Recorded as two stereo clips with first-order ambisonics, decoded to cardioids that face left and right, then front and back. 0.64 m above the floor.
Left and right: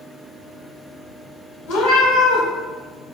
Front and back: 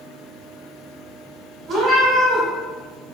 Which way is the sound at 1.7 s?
115° left.